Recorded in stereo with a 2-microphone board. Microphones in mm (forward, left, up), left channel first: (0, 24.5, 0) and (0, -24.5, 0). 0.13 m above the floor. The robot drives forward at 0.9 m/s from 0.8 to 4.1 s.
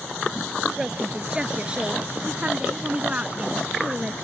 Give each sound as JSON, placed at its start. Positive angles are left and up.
{"t": 0.8, "sound": "a woman speaking", "side_deg": -15}